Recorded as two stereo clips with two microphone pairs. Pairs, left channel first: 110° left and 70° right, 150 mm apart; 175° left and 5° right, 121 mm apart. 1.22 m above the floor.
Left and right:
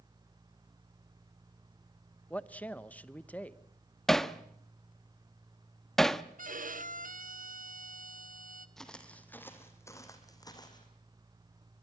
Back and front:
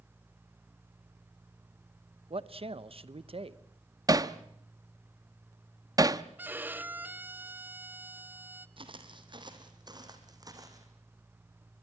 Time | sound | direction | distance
2.3 | a man speaking | 30° left | 0.9 m
4.1 | hammering | 25° left | 0.7 m
6.4 | a violin | 80° right | 0.9 m
8.8 | footsteps | 25° left | 2 m